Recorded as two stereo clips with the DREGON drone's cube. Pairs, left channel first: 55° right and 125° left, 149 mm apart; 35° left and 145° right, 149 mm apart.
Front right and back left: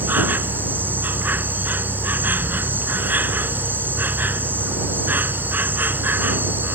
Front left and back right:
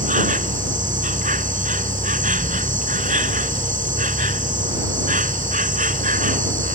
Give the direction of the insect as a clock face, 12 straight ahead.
5 o'clock.